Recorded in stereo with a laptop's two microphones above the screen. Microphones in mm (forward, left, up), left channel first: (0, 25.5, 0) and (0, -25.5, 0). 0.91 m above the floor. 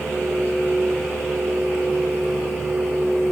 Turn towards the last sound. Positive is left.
turn(degrees=-65)  # may be behind; listen again after turning